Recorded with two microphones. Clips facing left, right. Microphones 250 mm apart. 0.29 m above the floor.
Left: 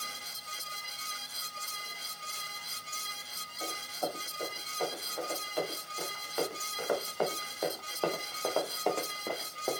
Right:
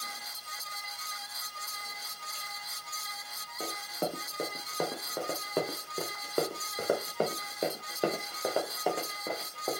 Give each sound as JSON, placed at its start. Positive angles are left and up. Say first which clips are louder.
{"t": 3.6, "sound": "running footsteps", "louder": "right 3 dB", "side_deg": -85, "distance_m": 2.5}